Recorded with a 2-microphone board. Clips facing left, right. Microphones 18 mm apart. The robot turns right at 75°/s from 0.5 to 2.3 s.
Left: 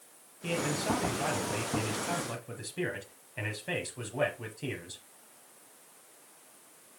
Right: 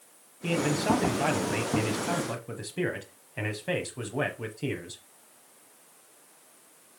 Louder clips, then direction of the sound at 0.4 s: Right 5 dB; 5° right (ahead or behind).